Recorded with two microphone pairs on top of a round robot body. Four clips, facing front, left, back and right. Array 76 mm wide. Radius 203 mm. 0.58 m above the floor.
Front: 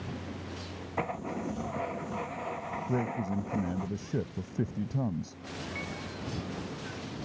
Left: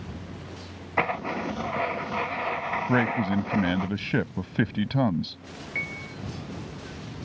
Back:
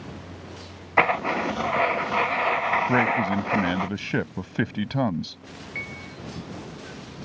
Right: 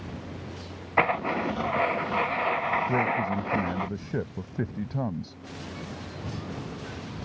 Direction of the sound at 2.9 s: 155° left.